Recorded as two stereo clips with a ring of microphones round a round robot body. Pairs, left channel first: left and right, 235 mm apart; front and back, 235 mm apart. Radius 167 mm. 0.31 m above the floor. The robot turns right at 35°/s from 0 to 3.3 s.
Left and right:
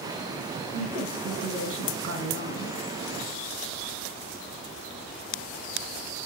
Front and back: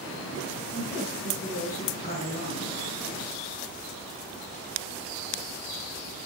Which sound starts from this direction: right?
A woman speaking, at 0.7 s.